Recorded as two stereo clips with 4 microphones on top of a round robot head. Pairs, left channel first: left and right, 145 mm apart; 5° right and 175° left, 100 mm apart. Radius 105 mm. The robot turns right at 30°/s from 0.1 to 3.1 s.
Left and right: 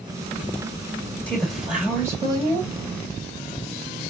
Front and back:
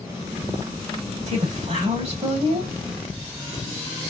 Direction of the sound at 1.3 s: 170° left.